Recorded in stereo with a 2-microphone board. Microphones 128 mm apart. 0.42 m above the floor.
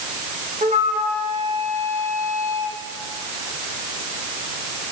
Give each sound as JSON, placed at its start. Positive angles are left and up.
{"t": 0.6, "sound": "a flute", "side_deg": -70, "distance_m": 4.0}